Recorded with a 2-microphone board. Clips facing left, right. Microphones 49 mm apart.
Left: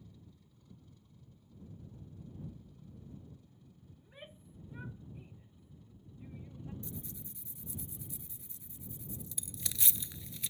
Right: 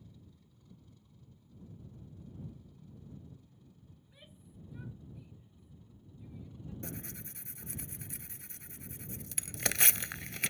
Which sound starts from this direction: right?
Tearing paper, at 6.8 s.